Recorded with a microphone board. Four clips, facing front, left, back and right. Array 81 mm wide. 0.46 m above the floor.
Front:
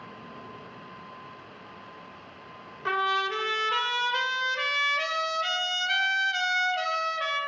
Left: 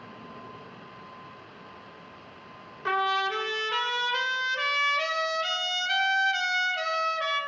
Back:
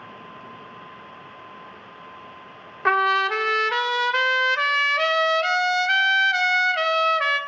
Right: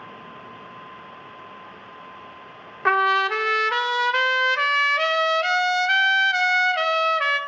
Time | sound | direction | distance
2.9 | a trumpet | 130° right | 0.8 m